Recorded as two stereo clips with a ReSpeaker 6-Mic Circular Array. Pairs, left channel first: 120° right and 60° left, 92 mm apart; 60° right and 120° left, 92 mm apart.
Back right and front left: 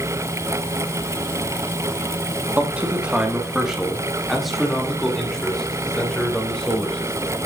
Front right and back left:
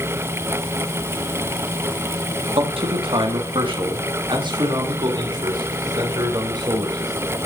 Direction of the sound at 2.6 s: 130° left.